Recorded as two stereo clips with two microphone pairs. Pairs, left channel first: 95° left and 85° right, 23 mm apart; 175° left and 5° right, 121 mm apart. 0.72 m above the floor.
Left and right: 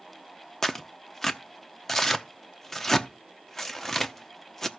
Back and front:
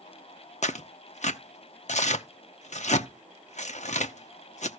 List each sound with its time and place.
0.6 s tearing paper: 170° left, 0.8 m